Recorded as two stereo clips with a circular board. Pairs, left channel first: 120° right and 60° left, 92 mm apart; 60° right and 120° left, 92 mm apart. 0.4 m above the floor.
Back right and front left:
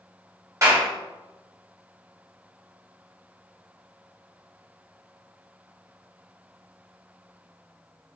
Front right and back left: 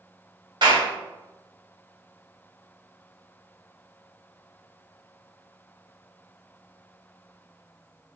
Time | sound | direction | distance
0.6 | a clap | 110° left | 1.7 m